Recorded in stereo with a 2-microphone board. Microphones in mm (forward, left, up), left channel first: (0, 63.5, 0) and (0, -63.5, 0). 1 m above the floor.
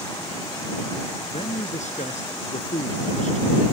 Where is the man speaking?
70° left (ahead or behind); by 3.5 s 75° left (ahead or behind).